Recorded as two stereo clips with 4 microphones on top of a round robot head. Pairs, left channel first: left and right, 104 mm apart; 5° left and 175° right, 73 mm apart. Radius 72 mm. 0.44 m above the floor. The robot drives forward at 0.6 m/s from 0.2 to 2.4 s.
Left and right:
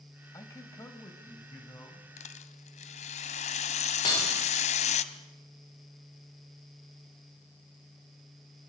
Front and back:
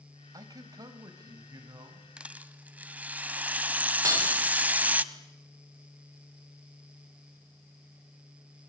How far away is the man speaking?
About 2.5 m.